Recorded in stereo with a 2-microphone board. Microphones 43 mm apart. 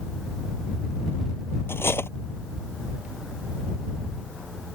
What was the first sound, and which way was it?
Cutlery clinking, 70° left (ahead or behind).